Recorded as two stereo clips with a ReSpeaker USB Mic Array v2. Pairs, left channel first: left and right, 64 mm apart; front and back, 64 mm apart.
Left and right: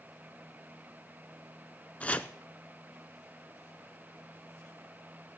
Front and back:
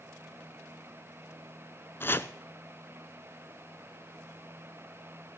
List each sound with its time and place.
2.0 s chopping: 35° left, 0.6 m